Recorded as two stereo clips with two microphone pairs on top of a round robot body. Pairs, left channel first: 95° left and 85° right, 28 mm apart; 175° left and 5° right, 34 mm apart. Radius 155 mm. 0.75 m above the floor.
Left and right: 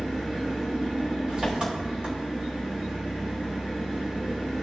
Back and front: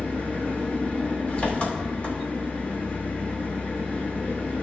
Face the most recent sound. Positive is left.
turn(degrees=-135)